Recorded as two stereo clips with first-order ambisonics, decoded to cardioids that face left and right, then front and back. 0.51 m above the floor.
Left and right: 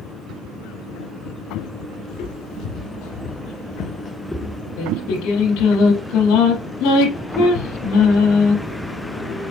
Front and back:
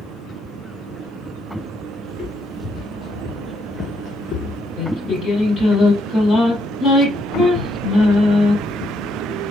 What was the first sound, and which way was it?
Footsteps, 85° left.